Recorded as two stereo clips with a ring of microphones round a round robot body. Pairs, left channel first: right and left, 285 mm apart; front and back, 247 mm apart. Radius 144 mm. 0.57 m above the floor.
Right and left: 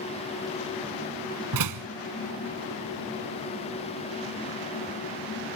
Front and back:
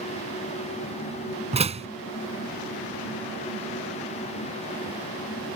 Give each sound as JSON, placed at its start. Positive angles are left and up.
{"t": 1.5, "sound": "a door slam", "azimuth_deg": 115}